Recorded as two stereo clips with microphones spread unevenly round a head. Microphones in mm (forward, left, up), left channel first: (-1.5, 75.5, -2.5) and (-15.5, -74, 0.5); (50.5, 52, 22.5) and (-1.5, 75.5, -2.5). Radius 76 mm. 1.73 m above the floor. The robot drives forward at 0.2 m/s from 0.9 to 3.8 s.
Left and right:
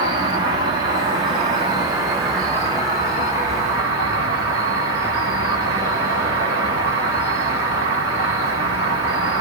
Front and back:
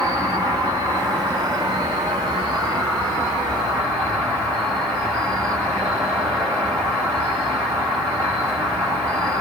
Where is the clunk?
No clunk in this recording.